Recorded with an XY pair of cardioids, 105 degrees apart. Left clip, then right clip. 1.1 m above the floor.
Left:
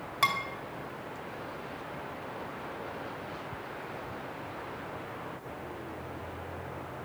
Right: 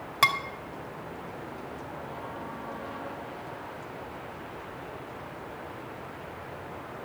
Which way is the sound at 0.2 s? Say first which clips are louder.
Right 4 dB; 35° right.